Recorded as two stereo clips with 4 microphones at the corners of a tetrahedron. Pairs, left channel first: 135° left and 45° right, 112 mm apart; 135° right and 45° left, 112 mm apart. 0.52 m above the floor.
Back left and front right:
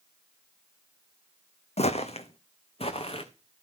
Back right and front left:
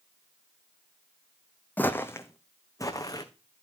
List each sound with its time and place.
1.8 s footsteps: 150° left, 1.5 m; by 3.3 s 170° left, 2.5 m